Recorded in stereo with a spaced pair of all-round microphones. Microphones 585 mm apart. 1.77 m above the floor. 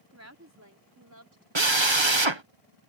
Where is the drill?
45° right (ahead or behind).